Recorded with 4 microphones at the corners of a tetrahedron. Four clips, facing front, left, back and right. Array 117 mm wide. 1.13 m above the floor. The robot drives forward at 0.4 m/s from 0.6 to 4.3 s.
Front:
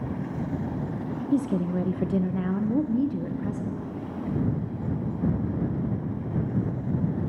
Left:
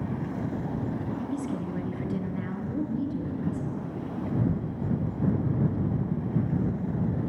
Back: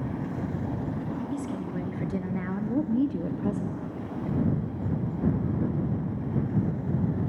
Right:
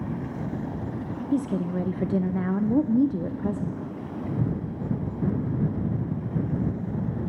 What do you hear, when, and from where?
1.3 s a woman speaking: 40° right, 1.0 m; by 3.8 s 125° right, 0.8 m